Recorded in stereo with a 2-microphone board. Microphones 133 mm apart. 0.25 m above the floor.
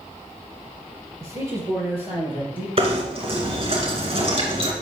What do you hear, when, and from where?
1.2 s a man speaking: 20° right (ahead or behind), 4 m; by 2.7 s 10° right (ahead or behind), 5 m
2.8 s knocking: 45° right (ahead or behind), 2.5 m